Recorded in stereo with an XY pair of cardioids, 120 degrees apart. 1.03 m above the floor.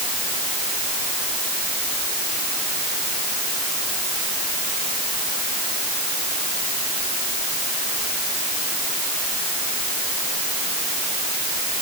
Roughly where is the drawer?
I don't hear a drawer.